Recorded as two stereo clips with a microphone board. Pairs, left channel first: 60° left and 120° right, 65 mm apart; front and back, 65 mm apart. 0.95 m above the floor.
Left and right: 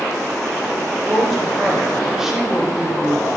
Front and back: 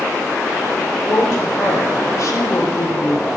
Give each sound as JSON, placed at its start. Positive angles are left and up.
{"t": 1.1, "sound": "a woman speaking", "azimuth_deg": -30, "distance_m": 1.7}